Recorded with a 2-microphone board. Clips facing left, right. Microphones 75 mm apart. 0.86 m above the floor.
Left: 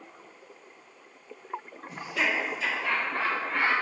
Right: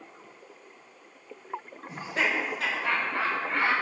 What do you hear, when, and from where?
1.9 s laughter: 20° right (ahead or behind), 0.7 m; by 3.7 s 70° right (ahead or behind), 1.3 m